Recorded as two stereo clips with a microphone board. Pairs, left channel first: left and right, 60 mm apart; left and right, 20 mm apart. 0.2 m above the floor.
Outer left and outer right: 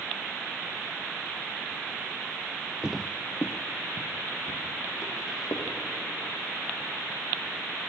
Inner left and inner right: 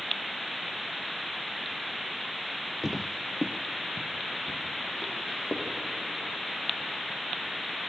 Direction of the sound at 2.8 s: 15° right (ahead or behind).